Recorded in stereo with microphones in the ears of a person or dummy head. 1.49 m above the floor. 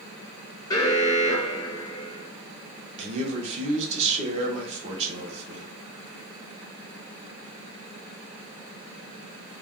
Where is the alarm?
20° left (ahead or behind), 0.7 m.